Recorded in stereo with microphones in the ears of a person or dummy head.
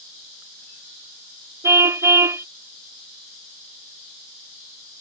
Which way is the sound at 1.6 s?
20° right (ahead or behind).